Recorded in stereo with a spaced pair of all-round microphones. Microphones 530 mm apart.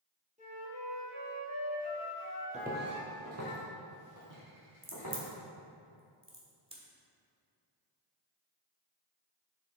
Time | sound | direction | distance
0.4 | a flute | 15° right (ahead or behind) | 2.5 m
2.5 | footsteps | 15° right (ahead or behind) | 1.7 m
4.8 | a crack | 10° right (ahead or behind) | 1.5 m